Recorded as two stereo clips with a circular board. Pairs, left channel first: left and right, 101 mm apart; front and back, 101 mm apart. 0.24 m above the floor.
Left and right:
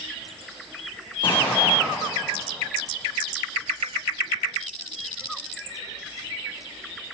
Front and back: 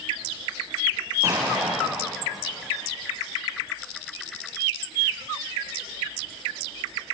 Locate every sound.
1.2 s an explosion: 120° left, 6 m